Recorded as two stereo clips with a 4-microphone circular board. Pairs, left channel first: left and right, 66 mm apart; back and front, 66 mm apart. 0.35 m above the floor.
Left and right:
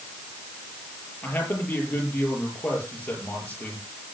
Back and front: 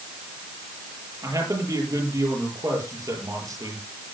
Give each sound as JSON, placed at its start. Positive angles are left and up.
{"t": 1.2, "sound": "a man speaking", "azimuth_deg": 25, "distance_m": 8.0}